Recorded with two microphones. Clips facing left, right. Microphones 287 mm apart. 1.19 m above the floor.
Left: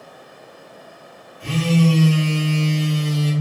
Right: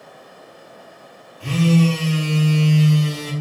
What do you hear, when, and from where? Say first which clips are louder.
1.4 s a phone buzzing: right 1 dB; 10° right (ahead or behind), 0.9 m